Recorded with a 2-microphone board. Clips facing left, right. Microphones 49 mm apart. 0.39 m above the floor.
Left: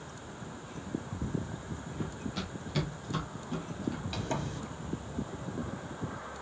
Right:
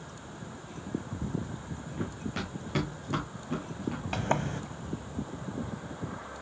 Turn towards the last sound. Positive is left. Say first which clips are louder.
# right 5 dB
turn(degrees=-45)  # may be behind; listen again after turning